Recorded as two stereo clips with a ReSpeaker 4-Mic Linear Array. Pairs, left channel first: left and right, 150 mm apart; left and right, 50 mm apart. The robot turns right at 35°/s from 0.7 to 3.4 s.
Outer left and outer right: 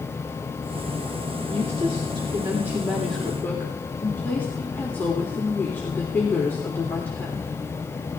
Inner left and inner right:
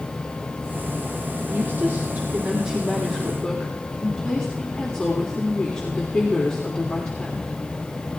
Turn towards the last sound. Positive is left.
turn(degrees=15)